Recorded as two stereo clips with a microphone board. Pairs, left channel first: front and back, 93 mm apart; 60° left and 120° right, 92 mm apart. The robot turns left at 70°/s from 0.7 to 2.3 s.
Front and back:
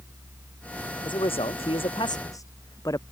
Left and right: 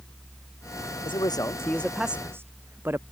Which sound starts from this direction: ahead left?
A man speaking, at 1.1 s.